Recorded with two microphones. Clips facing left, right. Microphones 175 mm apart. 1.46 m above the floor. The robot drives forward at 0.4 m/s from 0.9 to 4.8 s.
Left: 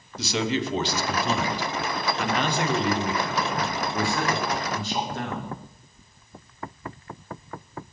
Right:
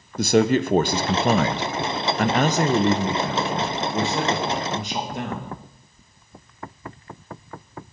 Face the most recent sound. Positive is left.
turn(degrees=-15)  # may be behind; listen again after turning